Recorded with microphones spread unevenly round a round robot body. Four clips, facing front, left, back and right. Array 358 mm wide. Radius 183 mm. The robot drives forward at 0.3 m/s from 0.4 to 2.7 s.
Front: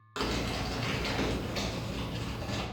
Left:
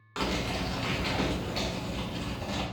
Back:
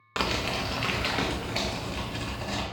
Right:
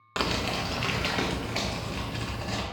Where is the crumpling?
140° right, 0.7 m; by 2.6 s 160° right, 1.3 m.